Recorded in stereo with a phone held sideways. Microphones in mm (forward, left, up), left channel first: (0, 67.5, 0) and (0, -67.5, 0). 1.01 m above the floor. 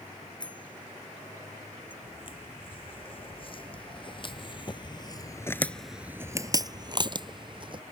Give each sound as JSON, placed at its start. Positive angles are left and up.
{"t": 0.4, "sound": "a bicycle bell", "side_deg": 35}
{"t": 2.0, "sound": "footsteps", "side_deg": 40}